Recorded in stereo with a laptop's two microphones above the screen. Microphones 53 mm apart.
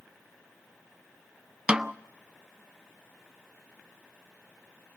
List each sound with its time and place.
1.7 s a snare drum: 15° right (ahead or behind), 0.5 m